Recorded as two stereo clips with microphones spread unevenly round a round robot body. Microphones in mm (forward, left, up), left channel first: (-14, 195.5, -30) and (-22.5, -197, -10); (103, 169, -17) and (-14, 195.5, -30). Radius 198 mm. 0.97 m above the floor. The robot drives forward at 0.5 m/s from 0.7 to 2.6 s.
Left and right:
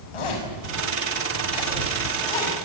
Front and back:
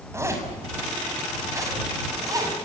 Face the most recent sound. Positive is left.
turn(degrees=105)